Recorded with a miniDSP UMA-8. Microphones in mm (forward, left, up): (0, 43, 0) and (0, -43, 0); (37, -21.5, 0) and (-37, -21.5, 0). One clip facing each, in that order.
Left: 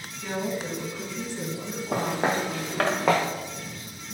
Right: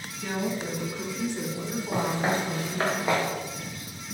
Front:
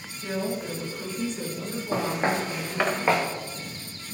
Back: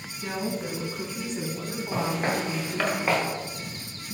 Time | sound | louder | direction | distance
0.2 | a woman speaking | even, front 1 dB | 175° right | 2.5 m
1.9 | footsteps | left 1 dB, front 2 dB | 60° left | 2.5 m